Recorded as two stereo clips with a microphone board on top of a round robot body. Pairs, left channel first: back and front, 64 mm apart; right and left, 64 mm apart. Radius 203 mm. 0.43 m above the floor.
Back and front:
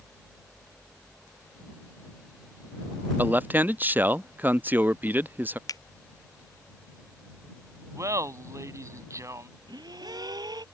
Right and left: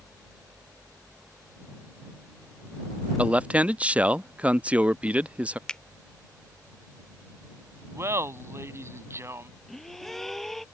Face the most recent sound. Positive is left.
turn(degrees=-5)